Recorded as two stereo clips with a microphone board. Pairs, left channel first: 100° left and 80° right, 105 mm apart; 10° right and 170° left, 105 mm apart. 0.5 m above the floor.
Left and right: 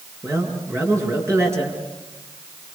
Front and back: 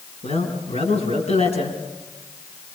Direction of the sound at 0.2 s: 15° right.